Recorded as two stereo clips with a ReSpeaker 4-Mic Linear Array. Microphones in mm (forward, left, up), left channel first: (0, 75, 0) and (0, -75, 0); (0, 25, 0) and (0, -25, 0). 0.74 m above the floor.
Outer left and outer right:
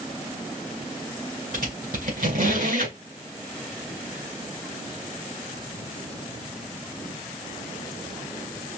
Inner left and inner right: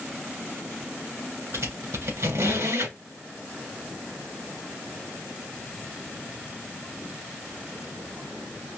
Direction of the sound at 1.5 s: 70° right (ahead or behind).